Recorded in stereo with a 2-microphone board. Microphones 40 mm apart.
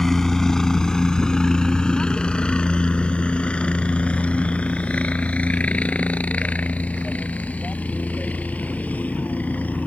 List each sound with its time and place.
0.0 s a helicopter: 10° left (ahead or behind); by 9.9 s 40° left (ahead or behind)